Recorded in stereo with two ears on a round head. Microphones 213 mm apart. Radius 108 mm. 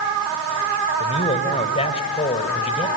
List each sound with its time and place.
1.0 s a man speaking: 25° left (ahead or behind), 2.5 m